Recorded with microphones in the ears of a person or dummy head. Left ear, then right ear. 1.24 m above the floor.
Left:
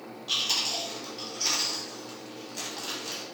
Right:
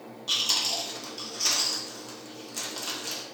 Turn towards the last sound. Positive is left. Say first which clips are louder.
# right 1 dB
turn(degrees=-80)